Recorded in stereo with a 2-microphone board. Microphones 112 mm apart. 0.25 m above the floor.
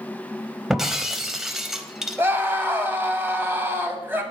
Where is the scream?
20° right (ahead or behind), 1.3 m.